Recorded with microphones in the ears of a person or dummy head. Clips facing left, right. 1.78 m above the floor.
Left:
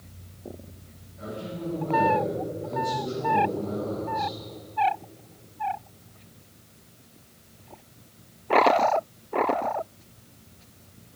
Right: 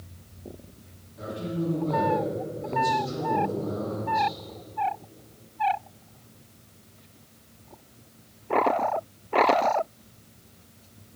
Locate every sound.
1.2 s a man speaking: 55° right (ahead or behind), 3 m